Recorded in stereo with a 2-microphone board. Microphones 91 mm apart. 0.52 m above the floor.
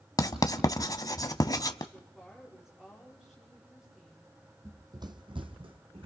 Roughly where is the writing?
Left.